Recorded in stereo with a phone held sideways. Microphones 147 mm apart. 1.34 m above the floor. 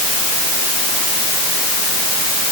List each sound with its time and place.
Only background noise.